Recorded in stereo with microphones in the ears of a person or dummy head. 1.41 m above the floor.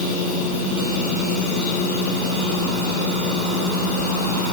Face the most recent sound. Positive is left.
No sound to turn to.